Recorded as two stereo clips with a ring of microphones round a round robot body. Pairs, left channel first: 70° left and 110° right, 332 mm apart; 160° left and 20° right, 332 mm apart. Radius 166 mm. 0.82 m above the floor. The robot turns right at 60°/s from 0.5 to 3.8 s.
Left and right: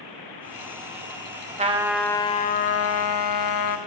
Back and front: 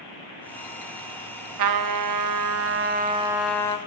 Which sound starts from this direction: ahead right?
A trumpet, at 1.6 s.